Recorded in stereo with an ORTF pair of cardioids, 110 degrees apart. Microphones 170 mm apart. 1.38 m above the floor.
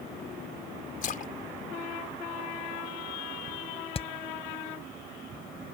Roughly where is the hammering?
Ahead left.